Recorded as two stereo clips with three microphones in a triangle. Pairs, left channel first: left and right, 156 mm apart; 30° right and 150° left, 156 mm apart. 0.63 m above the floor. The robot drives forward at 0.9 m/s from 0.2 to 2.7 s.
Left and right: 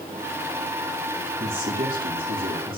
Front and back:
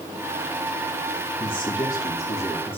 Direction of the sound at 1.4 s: 85° right.